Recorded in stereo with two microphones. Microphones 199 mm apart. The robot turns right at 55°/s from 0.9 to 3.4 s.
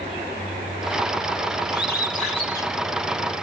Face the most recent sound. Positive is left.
turn(degrees=-150)